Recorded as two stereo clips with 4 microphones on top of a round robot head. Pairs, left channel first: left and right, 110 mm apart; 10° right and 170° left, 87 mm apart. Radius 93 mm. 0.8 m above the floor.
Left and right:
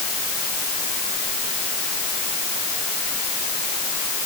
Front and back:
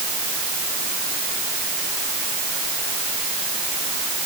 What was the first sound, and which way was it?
Only background noise.